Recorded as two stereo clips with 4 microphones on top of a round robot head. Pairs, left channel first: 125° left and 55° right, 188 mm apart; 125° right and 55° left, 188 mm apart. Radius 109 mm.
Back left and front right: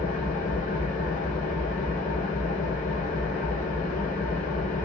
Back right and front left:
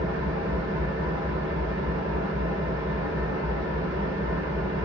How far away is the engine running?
About 1.2 m.